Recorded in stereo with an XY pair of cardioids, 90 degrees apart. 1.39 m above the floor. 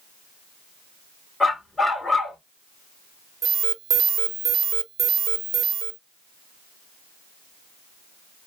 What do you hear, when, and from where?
1.4 s a dog barking: 25° left, 2.5 m
3.4 s an alarm: 55° right, 0.6 m